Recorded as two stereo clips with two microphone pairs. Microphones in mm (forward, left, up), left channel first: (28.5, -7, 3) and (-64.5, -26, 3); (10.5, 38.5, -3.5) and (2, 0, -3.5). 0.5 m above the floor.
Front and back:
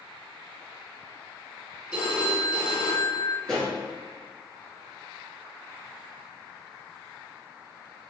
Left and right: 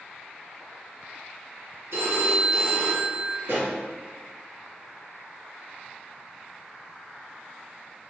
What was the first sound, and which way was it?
A phone ringing, 90° right.